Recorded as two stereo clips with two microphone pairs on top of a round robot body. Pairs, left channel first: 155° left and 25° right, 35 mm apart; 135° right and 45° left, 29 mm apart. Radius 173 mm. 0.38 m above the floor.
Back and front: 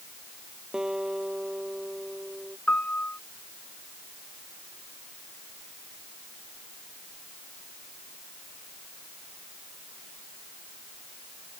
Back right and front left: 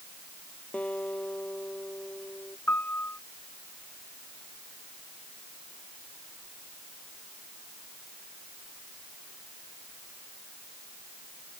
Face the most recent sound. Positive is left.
turn(degrees=-155)